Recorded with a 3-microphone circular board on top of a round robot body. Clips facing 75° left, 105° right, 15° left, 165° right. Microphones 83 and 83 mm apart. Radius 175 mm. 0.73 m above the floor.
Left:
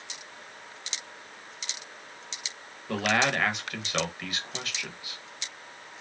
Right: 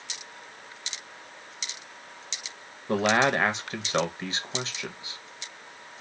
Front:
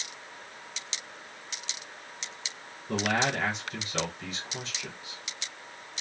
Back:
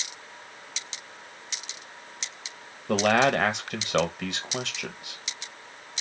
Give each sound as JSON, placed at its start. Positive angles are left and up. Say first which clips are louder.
{"t": 2.9, "sound": "a man speaking", "louder": "right 3 dB, back 7 dB", "azimuth_deg": -165, "distance_m": 1.2}